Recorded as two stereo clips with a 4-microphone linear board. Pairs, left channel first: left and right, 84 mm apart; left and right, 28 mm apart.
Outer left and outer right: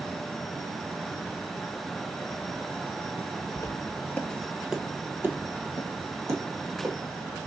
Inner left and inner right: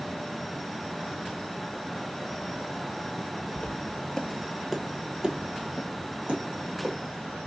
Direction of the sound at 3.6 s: 40° left (ahead or behind).